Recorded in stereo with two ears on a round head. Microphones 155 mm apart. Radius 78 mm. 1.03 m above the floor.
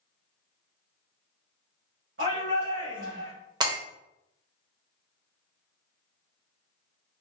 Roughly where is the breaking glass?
Right.